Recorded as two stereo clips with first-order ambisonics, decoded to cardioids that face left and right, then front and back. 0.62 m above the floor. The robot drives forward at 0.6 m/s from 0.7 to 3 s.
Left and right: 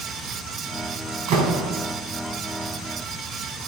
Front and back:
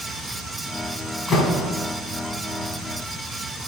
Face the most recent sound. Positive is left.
turn(degrees=-100)